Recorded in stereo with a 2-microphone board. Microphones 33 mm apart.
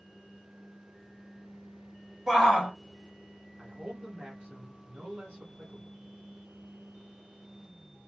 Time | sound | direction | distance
2.3 | a shout | 15° right (ahead or behind) | 2.5 m
3.6 | a man speaking | 40° right (ahead or behind) | 1.9 m